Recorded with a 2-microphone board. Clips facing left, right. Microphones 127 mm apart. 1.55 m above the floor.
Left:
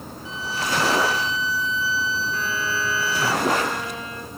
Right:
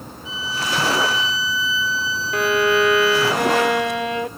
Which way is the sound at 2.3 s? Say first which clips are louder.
Right 10 dB; 80° right.